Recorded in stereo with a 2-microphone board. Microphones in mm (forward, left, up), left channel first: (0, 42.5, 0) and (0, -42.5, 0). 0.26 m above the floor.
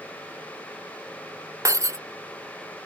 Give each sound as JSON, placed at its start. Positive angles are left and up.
{"t": 1.6, "sound": "breaking glass", "side_deg": -35}